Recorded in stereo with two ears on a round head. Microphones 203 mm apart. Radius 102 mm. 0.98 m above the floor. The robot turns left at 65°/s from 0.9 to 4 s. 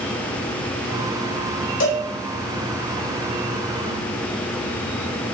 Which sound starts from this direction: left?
A cowbell, at 1.8 s.